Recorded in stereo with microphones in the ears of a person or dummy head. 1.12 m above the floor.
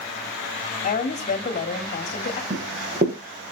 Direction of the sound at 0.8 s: 40° left (ahead or behind).